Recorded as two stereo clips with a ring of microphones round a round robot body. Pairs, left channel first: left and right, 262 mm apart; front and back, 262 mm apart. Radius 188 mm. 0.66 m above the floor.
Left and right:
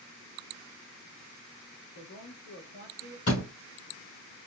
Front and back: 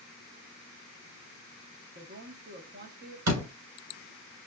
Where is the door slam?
160° left, 2.5 m.